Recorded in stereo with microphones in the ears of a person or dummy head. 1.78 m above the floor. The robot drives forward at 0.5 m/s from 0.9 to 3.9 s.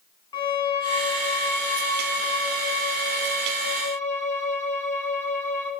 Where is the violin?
25° left (ahead or behind), 2 m; by 5.7 s 15° left (ahead or behind), 3.5 m.